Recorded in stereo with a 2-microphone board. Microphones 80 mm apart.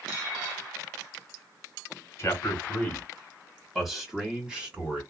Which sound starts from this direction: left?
A man speaking, at 2.2 s.